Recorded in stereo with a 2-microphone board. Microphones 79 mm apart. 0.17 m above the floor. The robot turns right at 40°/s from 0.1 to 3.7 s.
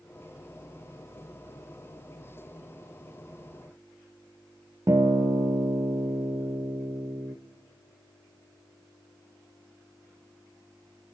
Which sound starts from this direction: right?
A guitar, at 4.9 s.